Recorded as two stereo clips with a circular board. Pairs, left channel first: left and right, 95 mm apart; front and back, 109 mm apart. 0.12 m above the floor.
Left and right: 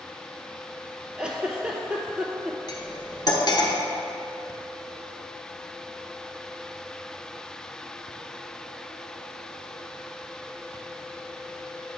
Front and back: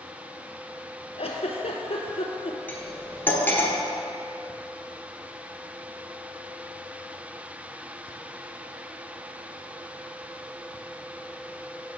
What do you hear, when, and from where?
1.2 s a giggle: 10° right, 0.8 m
2.7 s cutlery clinking: 70° left, 1.1 m